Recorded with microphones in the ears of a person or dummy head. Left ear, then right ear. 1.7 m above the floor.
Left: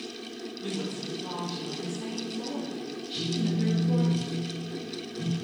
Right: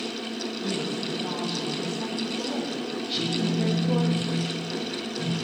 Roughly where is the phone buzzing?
Left.